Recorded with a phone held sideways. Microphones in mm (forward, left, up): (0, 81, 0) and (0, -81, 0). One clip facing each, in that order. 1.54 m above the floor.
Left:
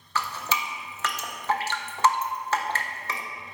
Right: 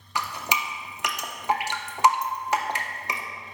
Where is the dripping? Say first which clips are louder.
Even; 15° right (ahead or behind), 0.6 m.